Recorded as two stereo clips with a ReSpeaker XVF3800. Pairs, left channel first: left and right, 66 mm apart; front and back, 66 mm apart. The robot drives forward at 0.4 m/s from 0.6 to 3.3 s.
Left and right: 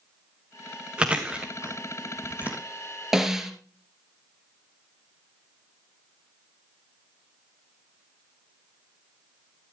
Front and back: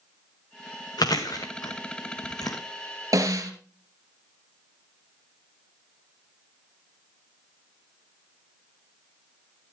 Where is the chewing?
15° right, 2 m; by 2.6 s 20° right, 1.6 m.